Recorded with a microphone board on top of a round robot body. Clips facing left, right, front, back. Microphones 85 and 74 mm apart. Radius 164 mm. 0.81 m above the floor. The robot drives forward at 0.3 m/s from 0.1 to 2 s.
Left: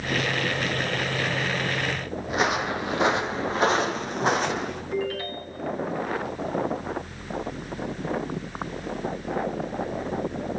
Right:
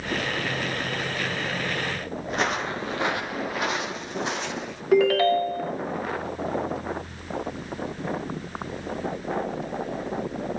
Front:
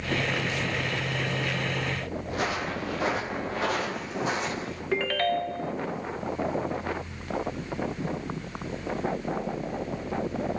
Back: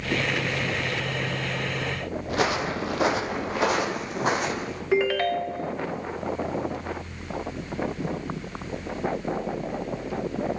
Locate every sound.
2.3 s footsteps: 175° left, 1.7 m; by 4.8 s 135° left, 2.5 m
4.9 s a ringtone: 95° right, 1.1 m